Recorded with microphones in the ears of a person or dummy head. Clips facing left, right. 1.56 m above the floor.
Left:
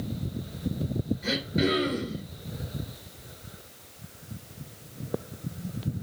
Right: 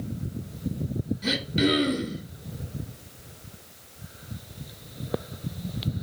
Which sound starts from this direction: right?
Throat clearing, at 1.2 s.